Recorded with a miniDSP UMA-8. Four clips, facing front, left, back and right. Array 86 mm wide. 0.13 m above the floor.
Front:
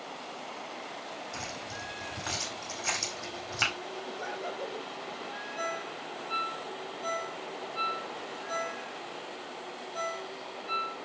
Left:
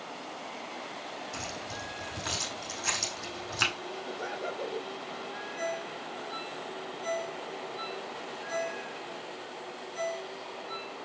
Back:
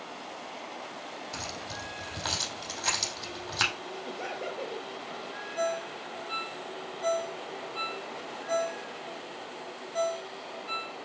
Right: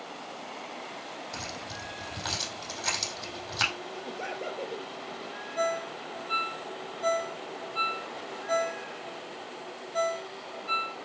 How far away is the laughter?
About 3.5 m.